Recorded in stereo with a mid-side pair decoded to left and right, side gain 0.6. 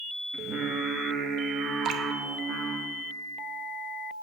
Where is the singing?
50° right, 1.1 m.